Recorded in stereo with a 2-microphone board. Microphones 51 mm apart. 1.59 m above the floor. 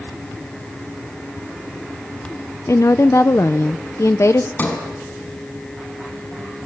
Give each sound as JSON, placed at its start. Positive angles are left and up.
{"t": 2.7, "sound": "a woman speaking", "side_deg": 65, "distance_m": 0.8}
{"t": 4.6, "sound": "a sliding door", "side_deg": 35, "distance_m": 5.0}